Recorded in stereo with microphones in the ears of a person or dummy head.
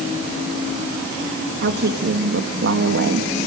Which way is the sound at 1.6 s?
65° right (ahead or behind).